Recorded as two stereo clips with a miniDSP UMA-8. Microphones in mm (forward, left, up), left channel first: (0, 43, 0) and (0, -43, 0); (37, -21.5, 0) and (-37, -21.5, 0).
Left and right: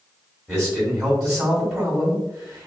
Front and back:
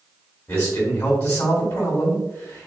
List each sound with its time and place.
0.5 s a man speaking: 20° right, 1.5 m